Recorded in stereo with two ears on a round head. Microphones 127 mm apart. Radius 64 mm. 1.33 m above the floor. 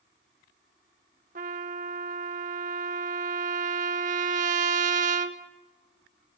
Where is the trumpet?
55° right (ahead or behind), 1.2 m.